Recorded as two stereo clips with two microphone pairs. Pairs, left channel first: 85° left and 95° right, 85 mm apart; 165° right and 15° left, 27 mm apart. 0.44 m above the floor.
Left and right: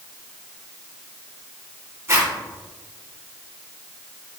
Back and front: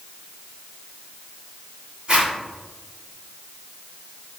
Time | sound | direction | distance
2.1 | a zipper | 40° right | 1.3 m